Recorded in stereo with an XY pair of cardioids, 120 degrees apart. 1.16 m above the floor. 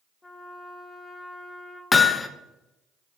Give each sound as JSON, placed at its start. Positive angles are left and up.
{"t": 0.2, "sound": "a trumpet", "azimuth_deg": 15, "distance_m": 1.1}
{"t": 1.9, "sound": "hammering", "azimuth_deg": 20, "distance_m": 0.6}